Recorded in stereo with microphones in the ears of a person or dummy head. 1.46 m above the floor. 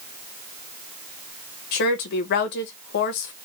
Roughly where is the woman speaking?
Left.